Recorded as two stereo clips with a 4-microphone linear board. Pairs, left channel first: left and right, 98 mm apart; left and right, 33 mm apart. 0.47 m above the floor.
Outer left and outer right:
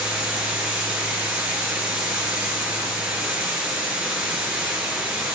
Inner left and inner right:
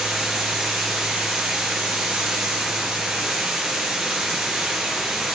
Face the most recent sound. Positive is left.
turn(degrees=-15)  # may be behind; listen again after turning